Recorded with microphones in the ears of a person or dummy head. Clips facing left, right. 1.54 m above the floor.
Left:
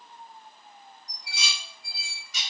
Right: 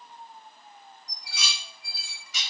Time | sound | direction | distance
1.1 | dishes clattering | 60° right (ahead or behind) | 1.2 m